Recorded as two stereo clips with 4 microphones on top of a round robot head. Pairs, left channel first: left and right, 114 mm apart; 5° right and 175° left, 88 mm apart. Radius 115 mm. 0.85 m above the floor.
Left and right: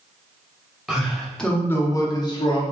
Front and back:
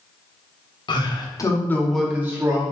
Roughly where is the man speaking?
Ahead.